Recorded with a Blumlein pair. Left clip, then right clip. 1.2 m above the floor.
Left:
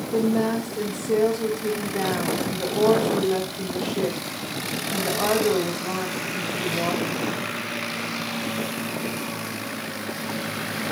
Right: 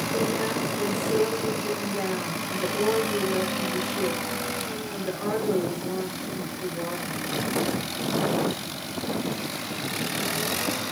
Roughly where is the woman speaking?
Ahead left.